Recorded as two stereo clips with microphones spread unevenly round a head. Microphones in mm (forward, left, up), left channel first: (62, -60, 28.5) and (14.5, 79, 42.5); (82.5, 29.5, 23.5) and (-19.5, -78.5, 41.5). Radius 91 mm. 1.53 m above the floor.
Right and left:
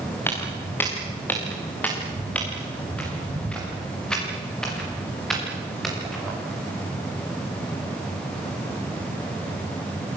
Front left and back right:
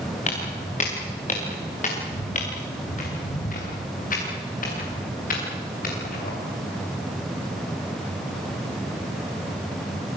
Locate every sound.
0.3 s footsteps: 5° left, 8 m; by 6.3 s 20° left, 10 m